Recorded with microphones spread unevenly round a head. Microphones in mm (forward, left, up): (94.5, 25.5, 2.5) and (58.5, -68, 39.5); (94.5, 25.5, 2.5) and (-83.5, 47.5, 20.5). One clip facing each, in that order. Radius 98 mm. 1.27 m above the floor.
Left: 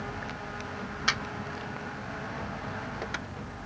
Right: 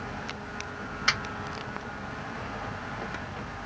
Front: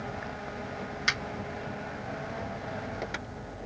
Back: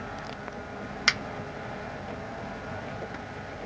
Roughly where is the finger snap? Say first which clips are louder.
Right 1 dB, back 2 dB; behind left.